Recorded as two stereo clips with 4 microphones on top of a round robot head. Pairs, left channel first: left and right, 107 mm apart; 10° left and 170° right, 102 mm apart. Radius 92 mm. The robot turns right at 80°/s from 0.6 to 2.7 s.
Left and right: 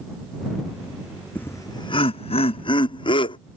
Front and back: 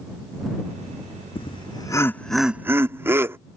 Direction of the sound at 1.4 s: 15° left.